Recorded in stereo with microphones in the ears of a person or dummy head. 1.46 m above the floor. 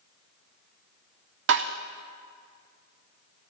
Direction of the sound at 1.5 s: 65° right (ahead or behind).